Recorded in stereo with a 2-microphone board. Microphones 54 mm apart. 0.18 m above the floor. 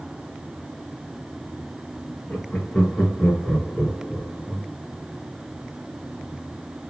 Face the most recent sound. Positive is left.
turn(degrees=0)  # may be behind; listen again after turning